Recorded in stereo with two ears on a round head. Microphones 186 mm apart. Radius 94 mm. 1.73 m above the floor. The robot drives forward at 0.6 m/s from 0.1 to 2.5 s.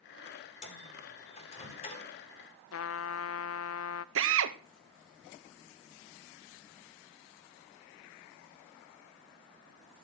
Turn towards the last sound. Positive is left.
turn(degrees=-70)  # may be behind; listen again after turning